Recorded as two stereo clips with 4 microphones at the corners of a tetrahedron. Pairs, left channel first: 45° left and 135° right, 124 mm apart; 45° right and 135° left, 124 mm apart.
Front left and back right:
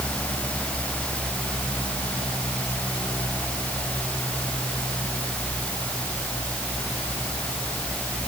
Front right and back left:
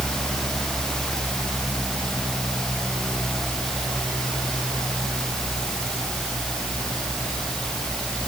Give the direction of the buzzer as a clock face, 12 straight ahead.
I don't hear a buzzer.